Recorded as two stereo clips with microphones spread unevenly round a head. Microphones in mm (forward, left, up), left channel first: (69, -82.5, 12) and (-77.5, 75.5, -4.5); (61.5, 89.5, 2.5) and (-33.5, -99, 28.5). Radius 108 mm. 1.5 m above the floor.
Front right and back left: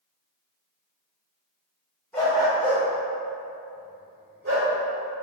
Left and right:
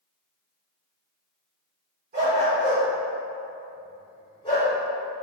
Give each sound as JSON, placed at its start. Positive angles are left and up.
{"t": 2.1, "sound": "a dog barking", "azimuth_deg": -125, "distance_m": 1.4}